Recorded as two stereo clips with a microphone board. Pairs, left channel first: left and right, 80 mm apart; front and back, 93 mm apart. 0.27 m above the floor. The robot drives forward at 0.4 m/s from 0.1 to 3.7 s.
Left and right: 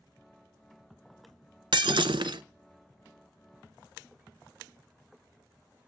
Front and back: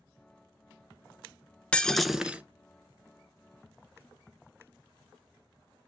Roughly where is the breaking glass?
Right.